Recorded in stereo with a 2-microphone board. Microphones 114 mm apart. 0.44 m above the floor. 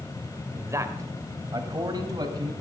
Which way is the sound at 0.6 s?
20° right (ahead or behind).